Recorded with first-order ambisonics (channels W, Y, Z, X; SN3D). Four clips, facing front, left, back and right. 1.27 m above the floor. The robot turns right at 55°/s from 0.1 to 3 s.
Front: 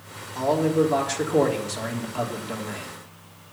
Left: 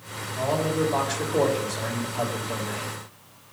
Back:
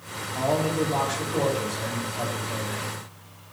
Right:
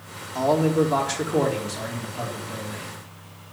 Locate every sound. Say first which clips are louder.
0.3 s a man speaking: right 5 dB, front 3 dB; 100° right, 3.5 m; by 2.9 s 40° left, 3.5 m